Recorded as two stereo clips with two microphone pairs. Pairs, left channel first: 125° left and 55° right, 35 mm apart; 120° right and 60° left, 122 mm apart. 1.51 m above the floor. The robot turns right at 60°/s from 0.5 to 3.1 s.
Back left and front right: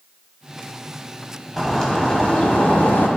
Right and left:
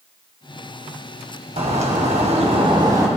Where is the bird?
35° left, 3 m; by 3.1 s 125° left, 3 m.